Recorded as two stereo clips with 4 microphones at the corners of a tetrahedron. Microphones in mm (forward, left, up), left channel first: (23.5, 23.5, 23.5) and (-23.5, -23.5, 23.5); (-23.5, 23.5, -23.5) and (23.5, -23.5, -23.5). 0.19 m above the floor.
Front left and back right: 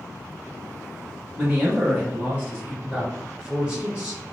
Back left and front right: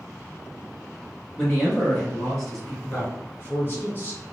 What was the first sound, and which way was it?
A man speaking, 155° right.